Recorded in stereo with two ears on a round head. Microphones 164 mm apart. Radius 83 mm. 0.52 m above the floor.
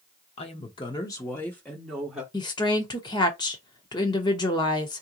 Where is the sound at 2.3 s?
25° left (ahead or behind), 0.9 m.